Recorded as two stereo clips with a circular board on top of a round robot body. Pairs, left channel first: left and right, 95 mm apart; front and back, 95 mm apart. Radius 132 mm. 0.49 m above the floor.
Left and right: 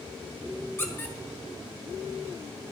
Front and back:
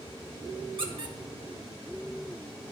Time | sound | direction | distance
0.8 | a squeak | 155° left | 1.8 m